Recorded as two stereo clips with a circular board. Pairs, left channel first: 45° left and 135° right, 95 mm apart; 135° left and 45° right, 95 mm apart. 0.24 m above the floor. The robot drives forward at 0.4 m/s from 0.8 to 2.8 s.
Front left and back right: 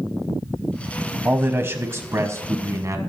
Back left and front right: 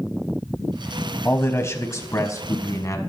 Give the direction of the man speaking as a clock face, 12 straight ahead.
6 o'clock.